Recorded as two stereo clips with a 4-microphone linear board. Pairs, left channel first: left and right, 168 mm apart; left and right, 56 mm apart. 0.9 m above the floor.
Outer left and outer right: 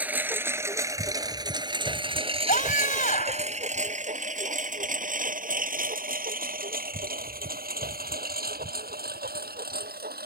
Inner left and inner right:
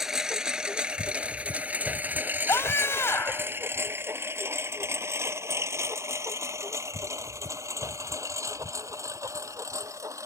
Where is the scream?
55° left (ahead or behind).